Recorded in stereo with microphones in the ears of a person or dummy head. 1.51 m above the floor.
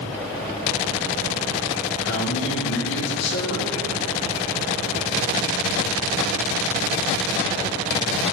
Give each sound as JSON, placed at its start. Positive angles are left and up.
{"t": 2.0, "sound": "a man speaking", "side_deg": 65, "distance_m": 5.0}